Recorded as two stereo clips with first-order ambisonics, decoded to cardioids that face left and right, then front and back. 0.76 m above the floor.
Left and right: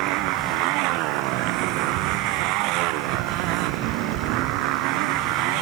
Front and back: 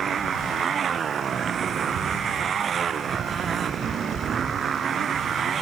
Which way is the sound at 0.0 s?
115° right.